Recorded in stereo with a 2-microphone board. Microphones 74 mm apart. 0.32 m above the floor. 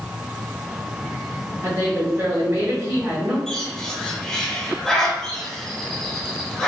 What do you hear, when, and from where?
1.6 s a woman speaking: 40° right (ahead or behind), 1.2 m
3.5 s a bird: 10° left (ahead or behind), 1.0 m